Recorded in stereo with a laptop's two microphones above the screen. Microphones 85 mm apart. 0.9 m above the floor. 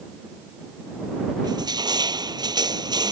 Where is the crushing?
55° right (ahead or behind).